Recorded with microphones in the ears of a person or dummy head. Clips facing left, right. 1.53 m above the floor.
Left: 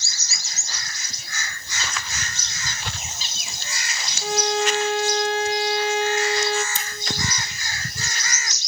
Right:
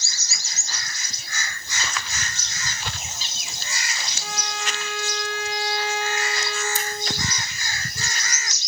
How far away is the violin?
About 0.6 m.